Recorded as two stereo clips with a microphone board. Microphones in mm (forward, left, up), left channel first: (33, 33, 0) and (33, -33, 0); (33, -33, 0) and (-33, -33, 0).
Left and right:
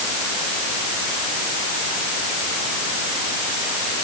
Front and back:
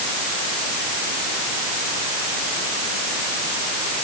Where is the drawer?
I don't hear a drawer.